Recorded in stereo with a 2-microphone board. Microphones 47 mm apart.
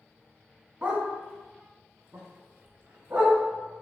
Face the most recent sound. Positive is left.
turn(degrees=-65)  # may be behind; listen again after turning